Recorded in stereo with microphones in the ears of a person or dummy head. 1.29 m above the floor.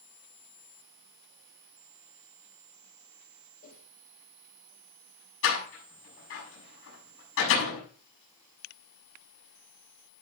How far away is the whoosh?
About 6.5 m.